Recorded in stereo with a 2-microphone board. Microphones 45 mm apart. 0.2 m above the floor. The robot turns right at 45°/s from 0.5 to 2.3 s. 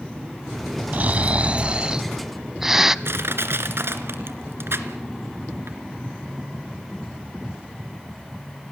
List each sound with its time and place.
0.9 s snoring: 80° right, 0.7 m; by 3.0 s 15° right, 0.7 m
3.0 s crushing: 65° right (ahead or behind), 2 m